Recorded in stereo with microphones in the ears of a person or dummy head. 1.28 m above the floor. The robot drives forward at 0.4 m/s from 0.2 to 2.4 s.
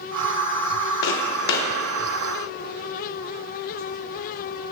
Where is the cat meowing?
I don't hear a cat meowing.